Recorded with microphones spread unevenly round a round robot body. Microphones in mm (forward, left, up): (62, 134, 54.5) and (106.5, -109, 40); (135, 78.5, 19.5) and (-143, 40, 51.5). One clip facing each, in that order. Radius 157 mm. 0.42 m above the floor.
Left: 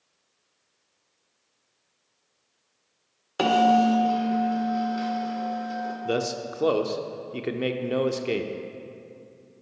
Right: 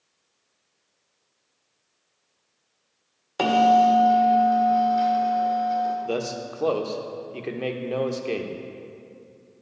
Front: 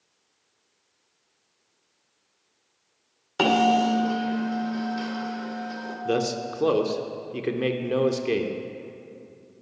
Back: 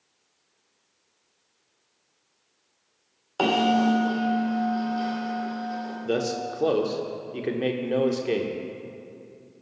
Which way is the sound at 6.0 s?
45° left.